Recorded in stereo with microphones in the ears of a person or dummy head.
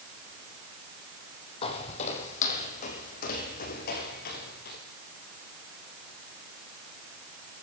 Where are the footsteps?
30° left (ahead or behind), 4.5 m; by 4.8 s 55° left (ahead or behind), 7.5 m.